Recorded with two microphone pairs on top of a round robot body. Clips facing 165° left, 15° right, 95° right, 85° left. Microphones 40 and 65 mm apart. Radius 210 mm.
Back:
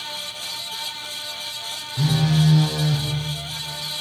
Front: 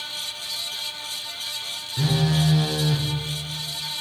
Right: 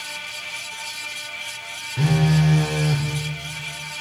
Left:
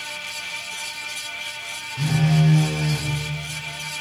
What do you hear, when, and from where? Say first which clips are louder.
2.0 s a phone buzzing: back 2 dB, right 1 dB; 95° right, 1.0 m